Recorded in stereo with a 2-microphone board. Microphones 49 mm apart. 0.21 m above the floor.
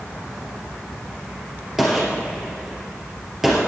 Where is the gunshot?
10° right (ahead or behind), 2.5 m.